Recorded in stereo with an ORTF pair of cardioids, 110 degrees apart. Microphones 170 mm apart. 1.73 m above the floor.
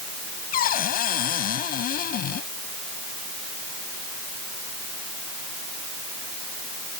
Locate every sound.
0.5 s a cupboard door: 60° left